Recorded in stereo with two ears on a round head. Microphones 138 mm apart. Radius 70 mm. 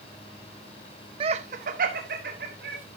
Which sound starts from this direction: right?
Laughter, at 1.2 s.